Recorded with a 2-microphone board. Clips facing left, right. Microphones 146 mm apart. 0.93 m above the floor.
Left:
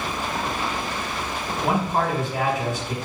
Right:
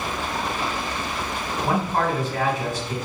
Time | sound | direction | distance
1.6 | a man speaking | 15° left (ahead or behind) | 2.0 m